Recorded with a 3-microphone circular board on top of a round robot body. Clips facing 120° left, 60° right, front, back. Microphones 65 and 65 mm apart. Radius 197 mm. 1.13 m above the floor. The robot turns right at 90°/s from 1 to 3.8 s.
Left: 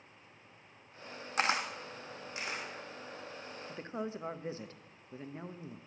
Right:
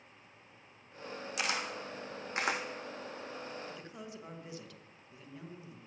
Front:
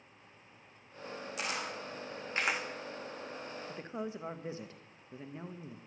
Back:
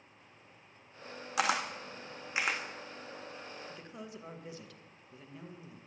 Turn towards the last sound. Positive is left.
turn(degrees=65)